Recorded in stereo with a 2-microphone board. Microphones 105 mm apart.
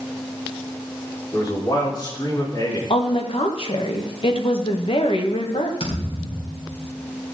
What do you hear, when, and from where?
1.3 s a man speaking: 45° left (ahead or behind), 5 m
2.9 s a woman speaking: 65° left (ahead or behind), 1.6 m
5.8 s a thud: 75° left (ahead or behind), 4 m